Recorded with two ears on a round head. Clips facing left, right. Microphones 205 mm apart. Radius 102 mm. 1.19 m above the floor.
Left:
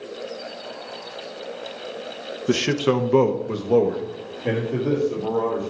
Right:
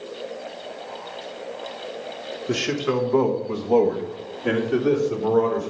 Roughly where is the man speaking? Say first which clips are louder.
Left 3 dB; left.